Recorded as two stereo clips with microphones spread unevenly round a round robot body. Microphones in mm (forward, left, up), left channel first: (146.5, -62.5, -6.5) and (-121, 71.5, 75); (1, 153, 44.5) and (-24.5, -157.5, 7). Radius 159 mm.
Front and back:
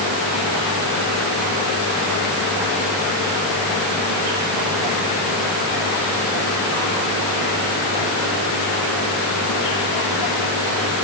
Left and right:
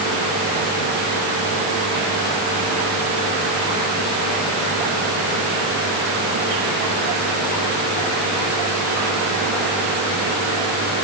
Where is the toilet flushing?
No toilet flushing in this recording.